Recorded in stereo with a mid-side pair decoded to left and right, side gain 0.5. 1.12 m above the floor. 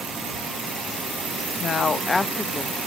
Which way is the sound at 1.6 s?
50° left.